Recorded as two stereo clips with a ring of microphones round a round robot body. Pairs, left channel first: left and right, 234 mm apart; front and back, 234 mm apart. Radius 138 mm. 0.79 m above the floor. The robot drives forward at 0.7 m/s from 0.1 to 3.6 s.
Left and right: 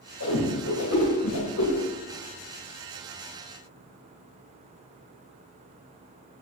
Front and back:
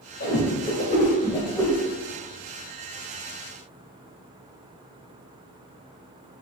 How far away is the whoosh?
About 2.5 m.